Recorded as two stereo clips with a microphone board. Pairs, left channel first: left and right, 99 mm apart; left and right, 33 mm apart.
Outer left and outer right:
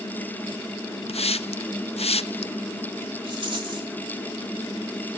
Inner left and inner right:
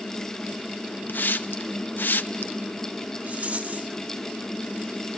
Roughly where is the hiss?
Left.